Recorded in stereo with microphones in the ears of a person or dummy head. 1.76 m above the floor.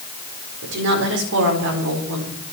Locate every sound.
0.6 s a woman speaking: 65° right (ahead or behind), 4.5 m